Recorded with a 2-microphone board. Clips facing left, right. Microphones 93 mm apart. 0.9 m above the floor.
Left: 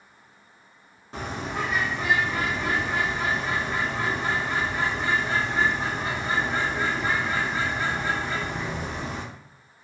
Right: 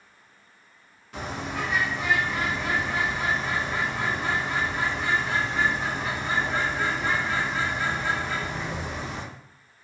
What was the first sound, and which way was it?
A bird, 30° left (ahead or behind).